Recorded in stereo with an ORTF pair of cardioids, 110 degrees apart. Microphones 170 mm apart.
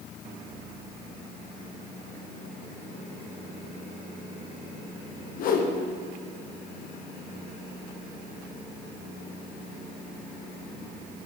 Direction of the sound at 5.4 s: 60° left.